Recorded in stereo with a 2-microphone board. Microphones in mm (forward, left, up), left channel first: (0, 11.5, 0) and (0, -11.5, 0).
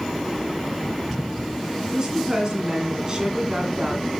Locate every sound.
1.9 s a woman speaking: 30° right (ahead or behind), 2 m